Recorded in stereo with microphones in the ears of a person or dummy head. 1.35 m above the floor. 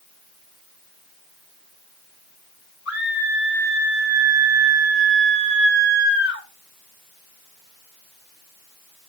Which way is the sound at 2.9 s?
65° left (ahead or behind).